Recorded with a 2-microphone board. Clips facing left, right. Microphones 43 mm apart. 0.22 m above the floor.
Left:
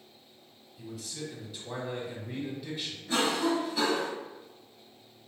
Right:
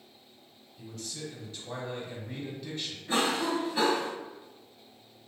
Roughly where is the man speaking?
Centre.